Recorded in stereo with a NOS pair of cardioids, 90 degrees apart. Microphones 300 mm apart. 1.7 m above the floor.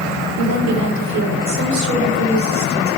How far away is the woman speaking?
About 3.5 m.